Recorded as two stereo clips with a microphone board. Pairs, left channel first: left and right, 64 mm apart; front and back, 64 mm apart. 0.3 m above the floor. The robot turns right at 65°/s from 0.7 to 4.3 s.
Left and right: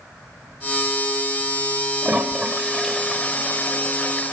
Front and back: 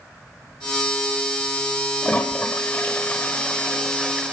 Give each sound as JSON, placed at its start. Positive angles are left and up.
{"t": 2.0, "sound": "a toilet flushing", "azimuth_deg": -40, "distance_m": 1.3}